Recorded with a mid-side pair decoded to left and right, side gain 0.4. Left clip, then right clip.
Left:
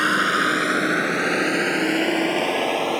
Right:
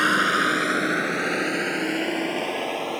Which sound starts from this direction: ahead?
A vehicle, at 0.0 s.